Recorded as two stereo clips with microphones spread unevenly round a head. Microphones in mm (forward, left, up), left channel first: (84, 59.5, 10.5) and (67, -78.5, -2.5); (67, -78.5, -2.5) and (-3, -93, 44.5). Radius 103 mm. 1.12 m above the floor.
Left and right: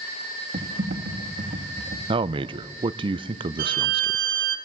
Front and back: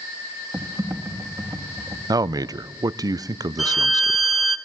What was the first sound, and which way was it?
Typing on a keyboard, 115° right.